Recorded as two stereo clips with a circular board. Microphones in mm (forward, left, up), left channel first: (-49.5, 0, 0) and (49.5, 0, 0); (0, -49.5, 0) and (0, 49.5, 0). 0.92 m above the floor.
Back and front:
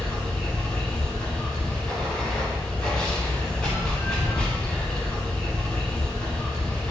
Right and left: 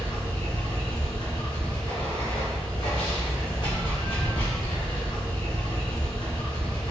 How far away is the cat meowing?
I don't hear a cat meowing.